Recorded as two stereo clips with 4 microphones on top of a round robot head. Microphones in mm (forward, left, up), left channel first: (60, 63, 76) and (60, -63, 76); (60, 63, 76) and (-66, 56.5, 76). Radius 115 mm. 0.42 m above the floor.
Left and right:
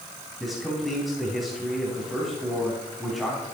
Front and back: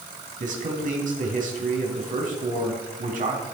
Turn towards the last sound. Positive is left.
turn(degrees=180)